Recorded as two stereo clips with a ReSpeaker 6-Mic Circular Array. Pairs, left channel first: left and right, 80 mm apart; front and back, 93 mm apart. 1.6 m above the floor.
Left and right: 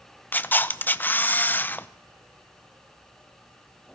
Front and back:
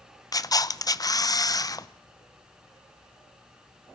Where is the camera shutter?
30° left, 0.7 m.